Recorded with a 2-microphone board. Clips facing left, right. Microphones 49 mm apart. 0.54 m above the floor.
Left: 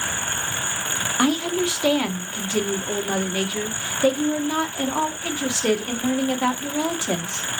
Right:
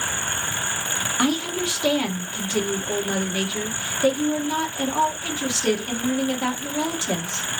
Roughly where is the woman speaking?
Centre.